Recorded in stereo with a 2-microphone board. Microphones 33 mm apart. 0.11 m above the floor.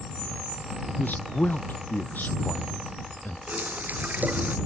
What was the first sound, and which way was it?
A man speaking, 70° left (ahead or behind).